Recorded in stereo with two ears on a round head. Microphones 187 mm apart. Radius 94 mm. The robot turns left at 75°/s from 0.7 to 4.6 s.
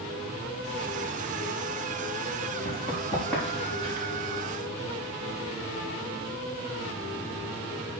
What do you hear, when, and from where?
2.6 s running footsteps: 55° left (ahead or behind), 6.5 m; by 4.1 s 45° right (ahead or behind), 5 m